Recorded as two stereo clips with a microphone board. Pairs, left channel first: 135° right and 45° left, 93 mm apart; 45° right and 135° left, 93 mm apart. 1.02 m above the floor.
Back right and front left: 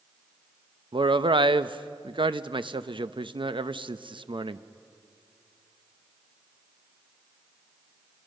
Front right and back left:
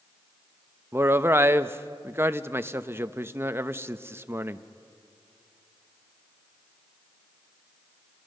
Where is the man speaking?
70° left, 0.7 m.